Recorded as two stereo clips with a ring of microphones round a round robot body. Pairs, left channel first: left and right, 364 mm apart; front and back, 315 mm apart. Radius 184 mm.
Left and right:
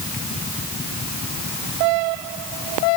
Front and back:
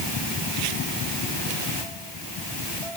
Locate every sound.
Only background noise.